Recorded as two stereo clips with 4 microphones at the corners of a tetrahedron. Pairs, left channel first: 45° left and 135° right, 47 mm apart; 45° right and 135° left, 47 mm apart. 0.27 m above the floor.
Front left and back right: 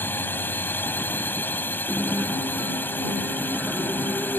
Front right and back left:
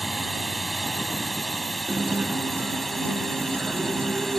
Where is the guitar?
170° left.